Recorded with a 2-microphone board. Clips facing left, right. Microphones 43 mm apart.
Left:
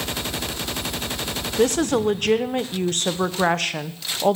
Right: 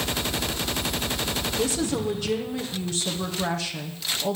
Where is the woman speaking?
55° left (ahead or behind), 0.8 m.